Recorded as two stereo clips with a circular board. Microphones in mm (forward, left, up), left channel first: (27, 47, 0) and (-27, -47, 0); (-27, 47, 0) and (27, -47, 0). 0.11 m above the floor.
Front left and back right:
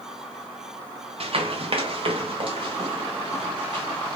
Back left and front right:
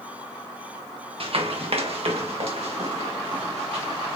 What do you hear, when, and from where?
1.2 s running footsteps: 90° right, 1.3 m; by 4.2 s 80° right, 3 m